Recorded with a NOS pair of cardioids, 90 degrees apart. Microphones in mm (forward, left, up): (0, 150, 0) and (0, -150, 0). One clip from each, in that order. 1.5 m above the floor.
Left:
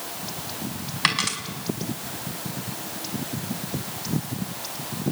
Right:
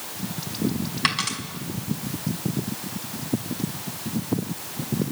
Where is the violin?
No violin in this recording.